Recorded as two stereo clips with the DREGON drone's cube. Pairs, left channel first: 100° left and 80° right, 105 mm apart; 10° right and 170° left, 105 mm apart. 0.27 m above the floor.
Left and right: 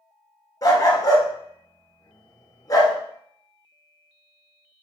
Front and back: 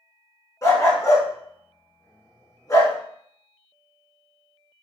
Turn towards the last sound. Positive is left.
turn(degrees=45)